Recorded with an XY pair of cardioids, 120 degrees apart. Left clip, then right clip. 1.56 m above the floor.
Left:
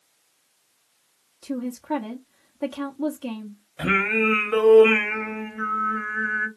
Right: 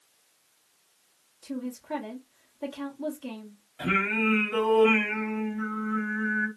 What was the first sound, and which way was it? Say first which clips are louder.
A woman speaking: left 6 dB; 55° left.